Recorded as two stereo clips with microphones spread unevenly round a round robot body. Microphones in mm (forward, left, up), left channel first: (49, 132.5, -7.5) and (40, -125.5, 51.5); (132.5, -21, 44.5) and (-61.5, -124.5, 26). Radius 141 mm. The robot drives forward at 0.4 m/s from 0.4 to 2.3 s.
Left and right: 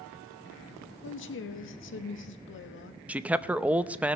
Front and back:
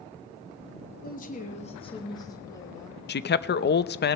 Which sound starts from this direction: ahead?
A man speaking, at 3.1 s.